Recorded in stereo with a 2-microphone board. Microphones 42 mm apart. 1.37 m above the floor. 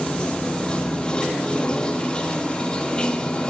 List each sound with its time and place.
0.0 s running water: 20° left (ahead or behind), 1.0 m